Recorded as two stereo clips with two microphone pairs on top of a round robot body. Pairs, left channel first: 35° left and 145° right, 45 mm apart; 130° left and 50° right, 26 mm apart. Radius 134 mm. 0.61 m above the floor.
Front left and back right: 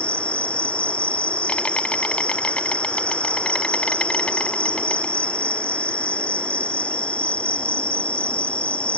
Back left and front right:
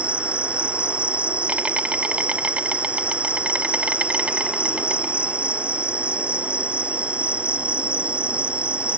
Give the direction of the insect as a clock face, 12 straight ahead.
1 o'clock.